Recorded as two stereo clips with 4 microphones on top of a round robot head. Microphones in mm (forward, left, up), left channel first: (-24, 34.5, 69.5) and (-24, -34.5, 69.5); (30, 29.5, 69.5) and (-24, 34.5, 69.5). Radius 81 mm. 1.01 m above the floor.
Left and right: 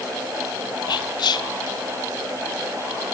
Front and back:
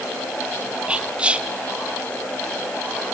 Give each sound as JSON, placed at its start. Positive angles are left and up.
{"t": 0.9, "sound": "whispering", "azimuth_deg": 105, "distance_m": 0.9}